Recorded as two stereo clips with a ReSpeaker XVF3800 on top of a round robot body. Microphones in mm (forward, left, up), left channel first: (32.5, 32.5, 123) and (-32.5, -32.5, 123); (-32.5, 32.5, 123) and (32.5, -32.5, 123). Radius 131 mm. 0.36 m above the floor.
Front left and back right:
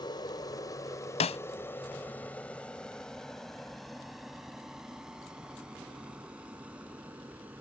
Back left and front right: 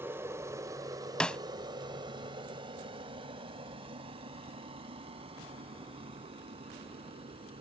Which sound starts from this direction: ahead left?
A snare drum, at 1.2 s.